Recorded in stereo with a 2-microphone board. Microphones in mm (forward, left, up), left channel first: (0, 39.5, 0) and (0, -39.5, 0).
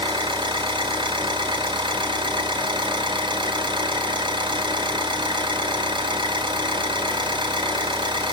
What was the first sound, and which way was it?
An engine running, 90° right.